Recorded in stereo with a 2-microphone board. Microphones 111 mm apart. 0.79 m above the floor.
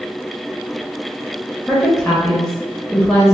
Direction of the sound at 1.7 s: Centre (ahead or behind).